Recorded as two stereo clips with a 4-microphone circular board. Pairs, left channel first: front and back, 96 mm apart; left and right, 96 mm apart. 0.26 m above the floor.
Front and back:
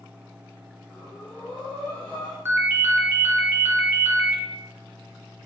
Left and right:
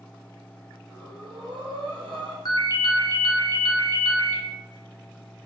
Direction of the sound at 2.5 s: 125° left.